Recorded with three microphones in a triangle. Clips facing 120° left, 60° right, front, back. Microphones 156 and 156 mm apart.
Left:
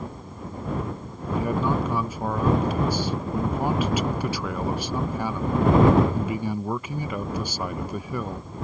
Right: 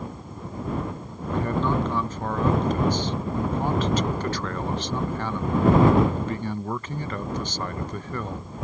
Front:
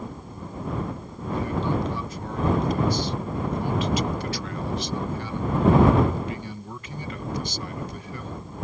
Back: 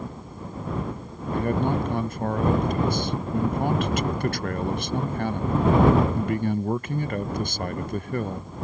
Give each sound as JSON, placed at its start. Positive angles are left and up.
{"t": 1.3, "sound": "a man speaking", "azimuth_deg": -160}